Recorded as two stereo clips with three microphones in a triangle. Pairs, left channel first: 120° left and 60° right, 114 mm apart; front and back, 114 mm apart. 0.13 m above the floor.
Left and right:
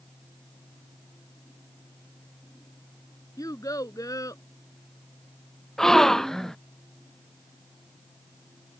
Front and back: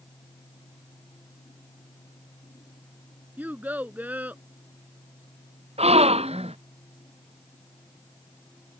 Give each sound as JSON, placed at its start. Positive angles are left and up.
{"t": 3.4, "sound": "a child speaking", "azimuth_deg": 120}
{"t": 5.8, "sound": "a gasp", "azimuth_deg": -155}